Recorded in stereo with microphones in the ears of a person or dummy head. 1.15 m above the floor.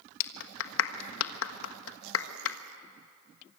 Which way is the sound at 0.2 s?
70° left (ahead or behind).